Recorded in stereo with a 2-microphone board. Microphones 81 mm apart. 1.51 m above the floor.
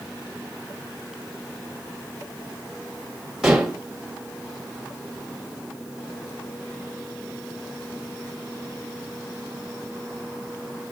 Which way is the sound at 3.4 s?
5° right (ahead or behind).